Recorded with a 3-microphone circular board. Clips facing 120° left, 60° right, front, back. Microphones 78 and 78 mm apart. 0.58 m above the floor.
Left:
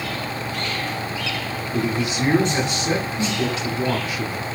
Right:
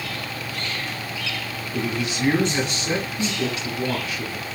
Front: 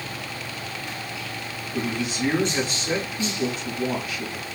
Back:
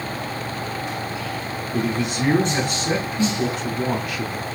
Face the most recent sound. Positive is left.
turn(degrees=175)